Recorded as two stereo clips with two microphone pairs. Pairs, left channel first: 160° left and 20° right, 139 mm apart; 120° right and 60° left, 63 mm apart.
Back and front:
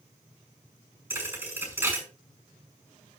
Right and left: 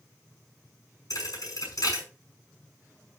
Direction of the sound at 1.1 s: 95° right.